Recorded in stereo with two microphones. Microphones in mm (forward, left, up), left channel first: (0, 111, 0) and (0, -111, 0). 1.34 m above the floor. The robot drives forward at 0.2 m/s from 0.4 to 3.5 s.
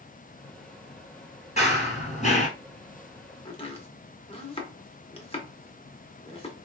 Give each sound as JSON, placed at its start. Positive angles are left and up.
{"t": 1.6, "sound": "running footsteps", "side_deg": 30, "distance_m": 1.7}
{"t": 3.5, "sound": "chopping", "side_deg": 25, "distance_m": 0.9}